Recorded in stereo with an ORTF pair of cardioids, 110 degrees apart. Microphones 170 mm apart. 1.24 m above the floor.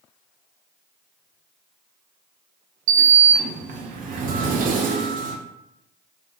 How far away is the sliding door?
About 0.5 m.